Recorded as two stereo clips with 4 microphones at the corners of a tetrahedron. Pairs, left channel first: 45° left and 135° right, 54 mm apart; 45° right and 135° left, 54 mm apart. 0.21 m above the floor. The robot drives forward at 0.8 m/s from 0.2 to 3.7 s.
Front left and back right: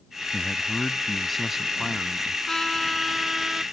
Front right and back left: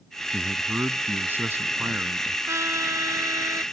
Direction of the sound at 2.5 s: 125° left.